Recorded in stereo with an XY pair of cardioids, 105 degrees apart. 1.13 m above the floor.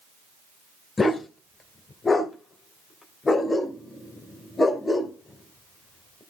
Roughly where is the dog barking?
Ahead left.